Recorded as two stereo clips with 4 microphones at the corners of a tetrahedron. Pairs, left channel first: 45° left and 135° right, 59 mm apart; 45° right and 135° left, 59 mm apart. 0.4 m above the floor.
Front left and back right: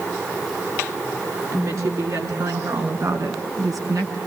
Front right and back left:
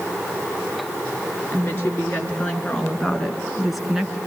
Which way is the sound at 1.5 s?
100° right.